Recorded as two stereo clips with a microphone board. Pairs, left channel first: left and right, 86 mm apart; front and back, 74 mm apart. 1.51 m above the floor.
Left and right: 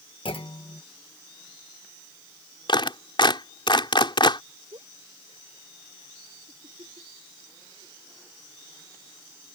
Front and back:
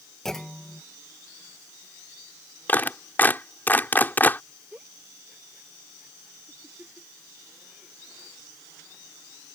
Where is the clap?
65° left.